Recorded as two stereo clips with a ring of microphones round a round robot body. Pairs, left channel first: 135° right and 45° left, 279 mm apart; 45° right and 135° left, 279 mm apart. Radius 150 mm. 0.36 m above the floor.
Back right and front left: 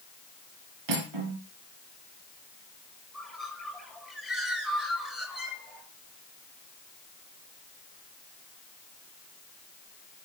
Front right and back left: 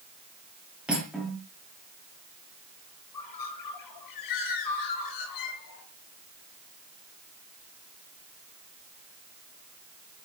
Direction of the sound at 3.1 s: 45° right.